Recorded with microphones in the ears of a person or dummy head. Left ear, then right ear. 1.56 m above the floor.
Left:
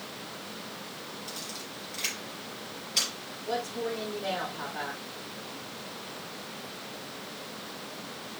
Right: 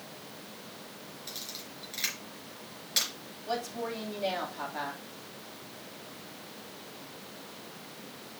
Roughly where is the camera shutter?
Right.